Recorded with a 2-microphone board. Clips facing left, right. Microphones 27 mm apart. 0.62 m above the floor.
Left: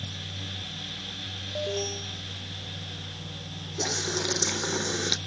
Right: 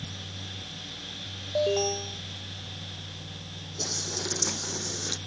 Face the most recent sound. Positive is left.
turn(degrees=40)  # may be behind; listen again after turning